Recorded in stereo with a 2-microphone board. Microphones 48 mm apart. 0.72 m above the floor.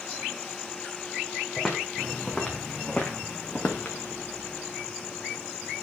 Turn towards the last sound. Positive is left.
turn(degrees=30)  # may be behind; listen again after turning